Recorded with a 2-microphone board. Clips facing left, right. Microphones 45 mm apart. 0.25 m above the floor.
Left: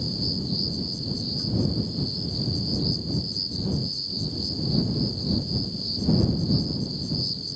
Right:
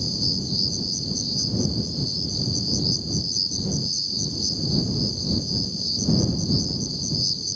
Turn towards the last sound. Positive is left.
turn(degrees=20)  # may be behind; listen again after turning